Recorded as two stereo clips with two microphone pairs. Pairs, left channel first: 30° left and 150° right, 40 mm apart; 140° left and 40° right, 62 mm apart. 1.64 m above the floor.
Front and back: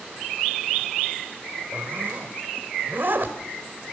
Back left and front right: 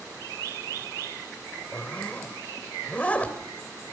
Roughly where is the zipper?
Behind right.